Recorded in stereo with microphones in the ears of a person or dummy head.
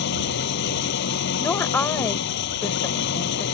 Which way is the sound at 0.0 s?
70° left (ahead or behind).